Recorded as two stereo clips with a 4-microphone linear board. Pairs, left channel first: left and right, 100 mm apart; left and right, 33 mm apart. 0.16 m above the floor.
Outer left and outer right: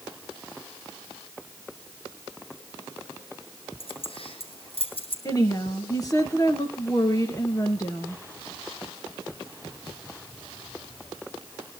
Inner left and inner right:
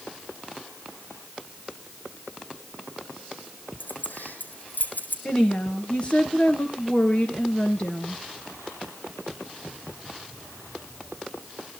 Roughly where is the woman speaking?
Left.